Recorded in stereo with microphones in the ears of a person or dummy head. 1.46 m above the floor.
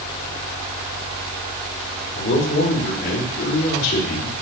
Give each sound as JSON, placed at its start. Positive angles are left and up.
{"t": 2.1, "sound": "a man speaking", "side_deg": 65, "distance_m": 4.5}